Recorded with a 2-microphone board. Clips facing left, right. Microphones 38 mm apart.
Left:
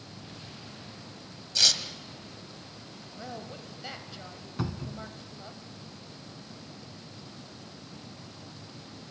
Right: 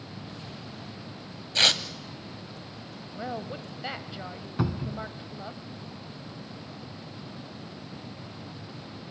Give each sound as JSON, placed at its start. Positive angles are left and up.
{"t": 1.6, "sound": "tearing paper", "side_deg": -40, "distance_m": 1.1}
{"t": 3.1, "sound": "a woman speaking", "side_deg": -25, "distance_m": 1.2}
{"t": 4.6, "sound": "a cupboard door", "side_deg": -15, "distance_m": 0.8}